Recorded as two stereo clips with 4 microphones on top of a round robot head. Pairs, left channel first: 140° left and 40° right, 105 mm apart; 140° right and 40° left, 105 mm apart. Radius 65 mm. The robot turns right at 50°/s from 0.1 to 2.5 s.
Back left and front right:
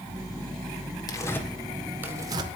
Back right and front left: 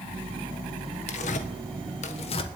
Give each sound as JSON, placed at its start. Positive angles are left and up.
{"t": 1.1, "sound": "tearing paper", "azimuth_deg": -165, "distance_m": 1.4}